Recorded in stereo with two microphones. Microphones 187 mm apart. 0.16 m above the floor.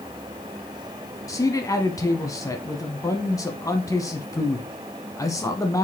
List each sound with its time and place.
1.3 s a man speaking: 20° left (ahead or behind), 1.0 m